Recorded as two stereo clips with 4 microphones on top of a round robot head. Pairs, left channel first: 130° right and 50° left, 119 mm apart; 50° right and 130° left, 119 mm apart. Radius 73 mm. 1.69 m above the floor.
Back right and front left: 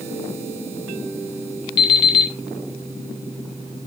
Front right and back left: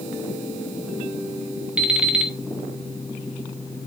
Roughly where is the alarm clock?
Behind right.